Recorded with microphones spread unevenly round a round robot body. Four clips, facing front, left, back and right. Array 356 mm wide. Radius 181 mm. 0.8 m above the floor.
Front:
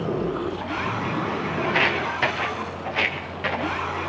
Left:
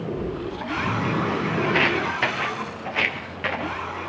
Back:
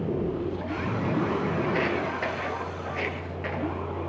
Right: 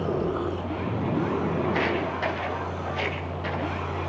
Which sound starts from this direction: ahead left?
Footsteps, at 1.6 s.